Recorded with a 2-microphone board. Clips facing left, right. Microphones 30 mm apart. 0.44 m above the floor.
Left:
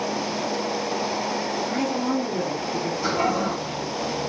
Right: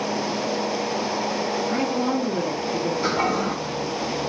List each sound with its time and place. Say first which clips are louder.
1.7 s a woman speaking: even; 20° right (ahead or behind), 0.7 m
3.0 s a toilet flushing: left 1 dB; 30° right (ahead or behind), 1.0 m